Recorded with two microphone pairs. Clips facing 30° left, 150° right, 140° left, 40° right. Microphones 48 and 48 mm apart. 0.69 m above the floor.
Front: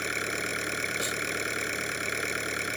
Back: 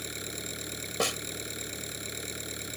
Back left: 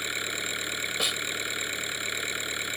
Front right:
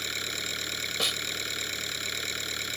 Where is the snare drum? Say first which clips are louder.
Back 1 dB, even; 130° right.